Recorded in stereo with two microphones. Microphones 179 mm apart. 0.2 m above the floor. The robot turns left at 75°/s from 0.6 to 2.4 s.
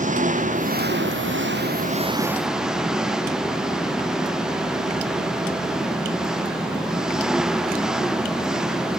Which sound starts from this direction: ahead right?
An engine running, at 0.0 s.